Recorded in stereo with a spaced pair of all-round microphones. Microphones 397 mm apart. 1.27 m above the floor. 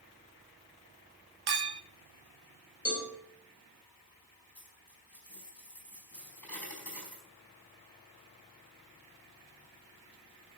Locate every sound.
1.5 s a clink: 70° right (ahead or behind), 0.6 m
2.9 s a cowbell: 40° left (ahead or behind), 5 m
4.5 s a dropped coin: 60° left (ahead or behind), 4 m